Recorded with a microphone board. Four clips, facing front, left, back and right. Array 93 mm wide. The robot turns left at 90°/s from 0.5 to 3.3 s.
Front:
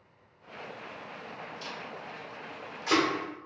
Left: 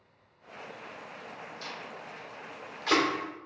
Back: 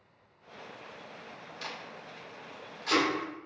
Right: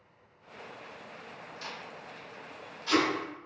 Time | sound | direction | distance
1.6 | tape being pulled | 175° right | 0.7 m